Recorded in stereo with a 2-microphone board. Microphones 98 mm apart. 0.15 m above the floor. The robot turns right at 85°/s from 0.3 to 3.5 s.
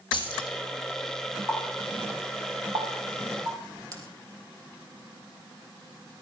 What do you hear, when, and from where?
0.1 s keys jangling: 65° left (ahead or behind), 3.5 m; by 0.6 s 45° left (ahead or behind), 3.5 m
1.5 s a running tap: 35° left (ahead or behind), 3 m; by 4.0 s 40° right (ahead or behind), 3 m